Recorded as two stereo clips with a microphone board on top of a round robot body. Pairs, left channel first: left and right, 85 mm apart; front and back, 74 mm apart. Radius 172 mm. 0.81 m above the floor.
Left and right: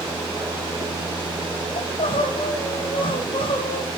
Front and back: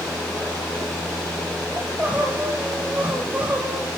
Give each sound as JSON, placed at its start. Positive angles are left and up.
{"t": 1.8, "sound": "crying", "azimuth_deg": 110, "distance_m": 1.3}